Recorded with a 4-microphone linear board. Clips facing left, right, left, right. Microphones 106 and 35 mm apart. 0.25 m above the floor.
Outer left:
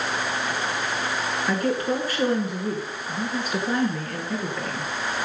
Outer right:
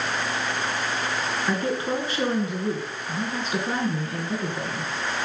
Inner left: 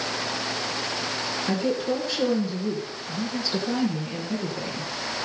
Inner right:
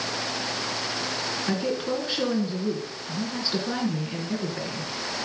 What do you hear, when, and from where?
1.5 s a woman speaking: 20° right (ahead or behind), 3 m